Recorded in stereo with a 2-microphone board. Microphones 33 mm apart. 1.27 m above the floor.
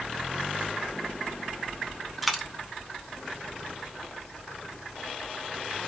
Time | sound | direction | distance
2.2 | a dropped coin | 5° right (ahead or behind) | 0.8 m